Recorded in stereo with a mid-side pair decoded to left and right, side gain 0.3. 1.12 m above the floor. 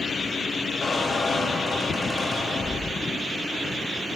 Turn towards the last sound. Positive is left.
turn(degrees=40)